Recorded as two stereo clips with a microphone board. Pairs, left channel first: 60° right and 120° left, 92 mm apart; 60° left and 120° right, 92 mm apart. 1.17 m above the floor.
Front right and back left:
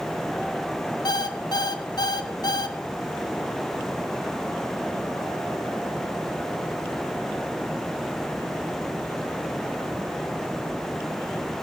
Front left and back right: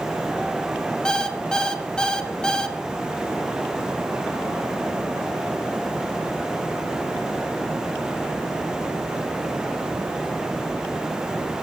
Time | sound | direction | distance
1.1 | an alarm clock | 20° right | 0.6 m